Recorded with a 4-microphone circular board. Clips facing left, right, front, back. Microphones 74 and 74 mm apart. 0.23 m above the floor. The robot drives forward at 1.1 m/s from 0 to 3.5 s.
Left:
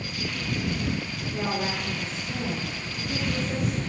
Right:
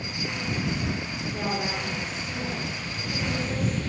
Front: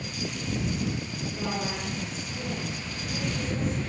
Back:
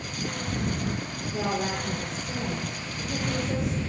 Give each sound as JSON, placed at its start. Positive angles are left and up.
{"t": 1.3, "sound": "a woman speaking", "azimuth_deg": -175, "distance_m": 4.5}